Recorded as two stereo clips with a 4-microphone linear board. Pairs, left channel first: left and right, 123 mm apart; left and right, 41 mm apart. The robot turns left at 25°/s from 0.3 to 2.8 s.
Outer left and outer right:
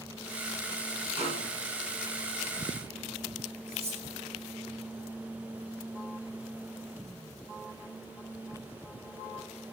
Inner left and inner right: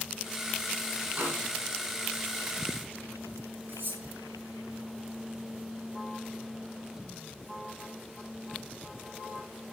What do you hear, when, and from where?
1.2 s a snare drum: 55° right (ahead or behind), 9 m; by 1.5 s 65° right (ahead or behind), 9 m
3.7 s cutlery clinking: 60° right (ahead or behind), 6 m